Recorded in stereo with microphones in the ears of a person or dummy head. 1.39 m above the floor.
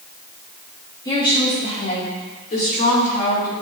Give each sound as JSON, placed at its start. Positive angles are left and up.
{"t": 1.1, "sound": "a woman speaking", "side_deg": 20, "distance_m": 1.9}